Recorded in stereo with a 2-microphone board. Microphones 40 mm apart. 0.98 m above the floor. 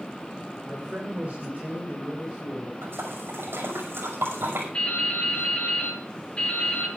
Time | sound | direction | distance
0.7 | a man speaking | 30° right (ahead or behind) | 3 m
2.8 | a splash | 80° right | 5.5 m
4.7 | dripping | 25° left (ahead or behind) | 8 m